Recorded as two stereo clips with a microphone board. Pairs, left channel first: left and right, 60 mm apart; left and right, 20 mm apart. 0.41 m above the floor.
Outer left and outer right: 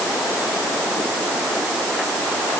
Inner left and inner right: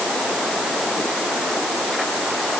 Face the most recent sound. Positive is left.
No sound to turn to.